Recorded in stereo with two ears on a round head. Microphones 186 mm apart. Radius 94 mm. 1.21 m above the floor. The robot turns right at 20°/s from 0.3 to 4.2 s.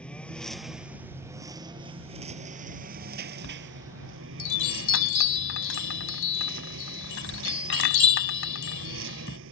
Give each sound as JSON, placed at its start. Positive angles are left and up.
{"t": 0.0, "sound": "a lawn mower", "azimuth_deg": 175}
{"t": 3.4, "sound": "a chime", "side_deg": 65}